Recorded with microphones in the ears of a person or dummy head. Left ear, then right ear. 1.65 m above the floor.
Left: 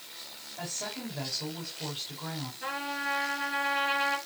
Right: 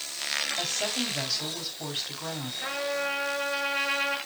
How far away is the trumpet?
About 6 m.